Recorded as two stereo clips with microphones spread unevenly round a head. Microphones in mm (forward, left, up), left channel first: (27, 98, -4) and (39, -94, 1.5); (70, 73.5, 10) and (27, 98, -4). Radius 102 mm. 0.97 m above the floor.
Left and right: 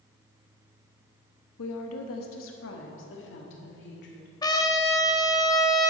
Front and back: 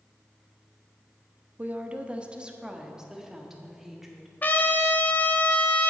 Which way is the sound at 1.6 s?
95° left.